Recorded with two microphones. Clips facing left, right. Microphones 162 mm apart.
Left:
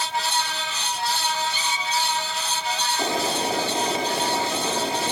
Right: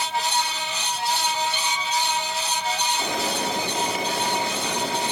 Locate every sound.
1.5 s a squeak: 75° right (ahead or behind), 5.5 m
3.0 s boiling: 30° left (ahead or behind), 5.5 m